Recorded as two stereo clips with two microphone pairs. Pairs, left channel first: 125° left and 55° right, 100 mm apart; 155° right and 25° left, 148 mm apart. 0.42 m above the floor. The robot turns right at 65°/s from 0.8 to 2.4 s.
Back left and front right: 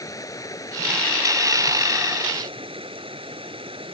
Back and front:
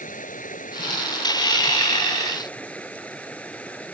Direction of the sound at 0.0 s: Straight behind.